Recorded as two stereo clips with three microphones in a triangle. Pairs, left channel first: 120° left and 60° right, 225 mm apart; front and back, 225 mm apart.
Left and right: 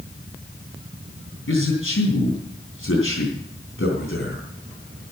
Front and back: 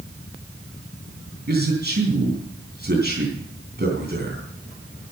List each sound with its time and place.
1.5 s a man speaking: 140° left, 3.5 m